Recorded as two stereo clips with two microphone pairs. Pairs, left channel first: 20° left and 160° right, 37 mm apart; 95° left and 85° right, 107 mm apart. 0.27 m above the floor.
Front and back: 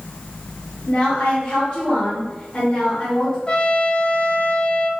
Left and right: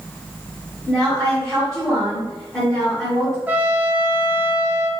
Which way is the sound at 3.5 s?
15° right.